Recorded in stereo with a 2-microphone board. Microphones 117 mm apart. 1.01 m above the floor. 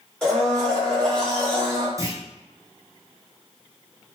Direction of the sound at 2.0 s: 25° right (ahead or behind).